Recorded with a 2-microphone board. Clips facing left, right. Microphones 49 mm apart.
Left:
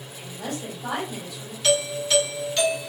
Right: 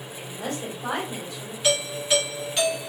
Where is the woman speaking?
35° right (ahead or behind), 1.9 m.